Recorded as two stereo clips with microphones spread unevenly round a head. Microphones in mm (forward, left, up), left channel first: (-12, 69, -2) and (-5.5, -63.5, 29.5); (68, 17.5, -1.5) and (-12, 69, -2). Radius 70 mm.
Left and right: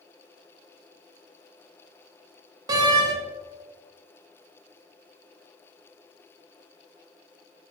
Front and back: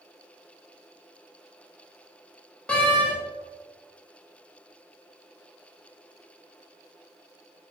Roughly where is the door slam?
Right.